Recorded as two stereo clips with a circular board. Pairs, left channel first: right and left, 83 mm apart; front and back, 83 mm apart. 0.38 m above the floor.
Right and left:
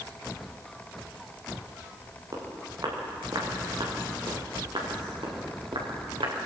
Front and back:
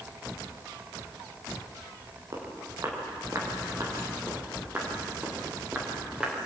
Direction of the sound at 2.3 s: 135° left.